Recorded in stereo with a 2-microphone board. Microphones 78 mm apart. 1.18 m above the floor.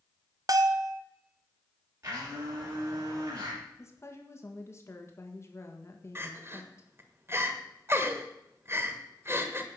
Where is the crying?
30° right (ahead or behind), 1.4 m.